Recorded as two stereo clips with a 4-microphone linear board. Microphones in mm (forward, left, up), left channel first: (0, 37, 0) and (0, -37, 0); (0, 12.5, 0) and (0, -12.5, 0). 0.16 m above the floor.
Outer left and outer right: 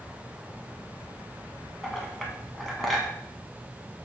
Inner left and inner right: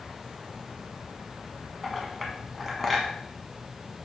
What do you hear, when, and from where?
1.8 s a clink: centre (ahead or behind), 0.8 m